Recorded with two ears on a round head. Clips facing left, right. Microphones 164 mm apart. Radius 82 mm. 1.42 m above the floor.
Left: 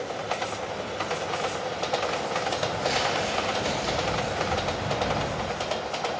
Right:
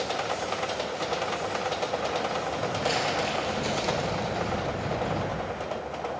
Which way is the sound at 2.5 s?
30° right (ahead or behind).